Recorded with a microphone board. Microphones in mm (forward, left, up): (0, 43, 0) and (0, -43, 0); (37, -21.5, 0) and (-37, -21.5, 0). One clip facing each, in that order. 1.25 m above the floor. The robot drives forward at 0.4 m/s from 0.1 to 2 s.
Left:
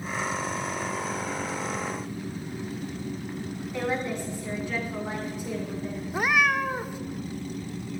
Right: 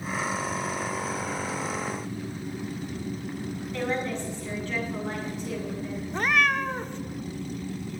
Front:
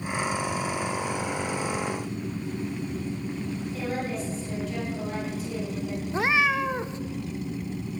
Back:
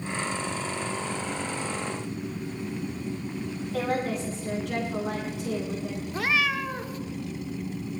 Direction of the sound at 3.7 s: 170° left.